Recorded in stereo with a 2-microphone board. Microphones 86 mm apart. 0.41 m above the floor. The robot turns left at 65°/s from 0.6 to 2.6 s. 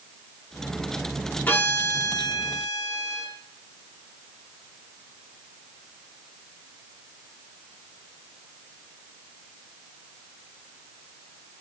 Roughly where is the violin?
Behind left.